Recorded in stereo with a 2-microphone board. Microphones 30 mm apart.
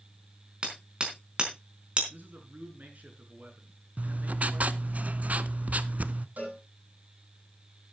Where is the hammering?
35° right (ahead or behind), 4.5 m.